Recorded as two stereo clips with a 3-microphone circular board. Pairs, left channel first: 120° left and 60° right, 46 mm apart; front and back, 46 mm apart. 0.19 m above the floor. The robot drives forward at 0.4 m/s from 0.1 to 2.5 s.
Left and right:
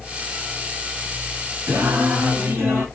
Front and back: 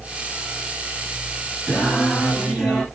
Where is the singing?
70° right, 3 m; by 2.9 s 80° right, 3 m.